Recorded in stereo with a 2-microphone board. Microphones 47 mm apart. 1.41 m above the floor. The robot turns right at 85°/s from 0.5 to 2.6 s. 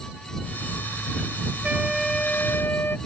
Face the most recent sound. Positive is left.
turn(degrees=55)